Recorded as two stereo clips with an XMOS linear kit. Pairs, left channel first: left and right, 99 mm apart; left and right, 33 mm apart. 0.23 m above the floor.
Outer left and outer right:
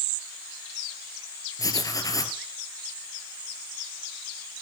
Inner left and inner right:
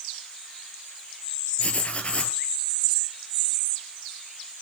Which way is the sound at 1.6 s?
40° left (ahead or behind).